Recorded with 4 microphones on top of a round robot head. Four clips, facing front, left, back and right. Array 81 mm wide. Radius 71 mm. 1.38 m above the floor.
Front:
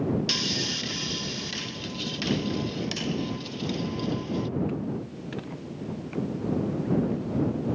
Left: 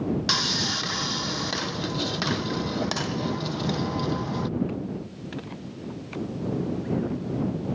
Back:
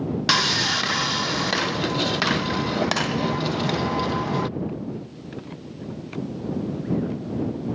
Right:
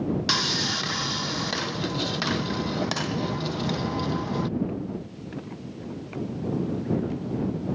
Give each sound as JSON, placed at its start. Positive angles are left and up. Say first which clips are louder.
{"t": 0.3, "sound": "sawing", "louder": "right 1 dB, back 9 dB", "azimuth_deg": 180}